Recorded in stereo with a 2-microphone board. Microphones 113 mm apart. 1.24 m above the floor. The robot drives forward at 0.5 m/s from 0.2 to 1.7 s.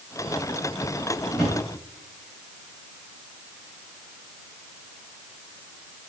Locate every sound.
1.3 s a drawer: centre (ahead or behind), 3 m